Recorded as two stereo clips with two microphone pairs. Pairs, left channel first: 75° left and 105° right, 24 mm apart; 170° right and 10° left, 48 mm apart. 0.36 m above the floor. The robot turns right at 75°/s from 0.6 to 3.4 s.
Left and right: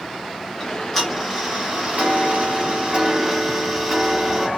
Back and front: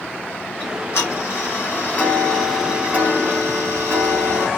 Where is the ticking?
135° left, 2.5 m; by 4.5 s 15° right, 2.5 m.